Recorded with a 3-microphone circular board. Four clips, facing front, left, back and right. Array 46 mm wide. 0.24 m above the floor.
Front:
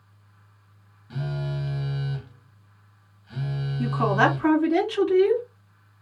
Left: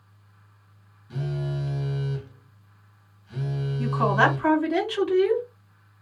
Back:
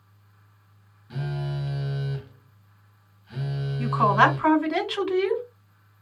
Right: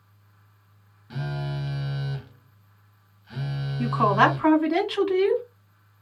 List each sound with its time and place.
1.1 s a phone buzzing: 85° right, 0.7 m
3.8 s a woman speaking: 140° right, 1.8 m